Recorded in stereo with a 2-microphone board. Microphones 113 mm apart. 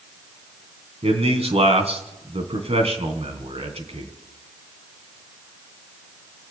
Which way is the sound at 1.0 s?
70° right (ahead or behind).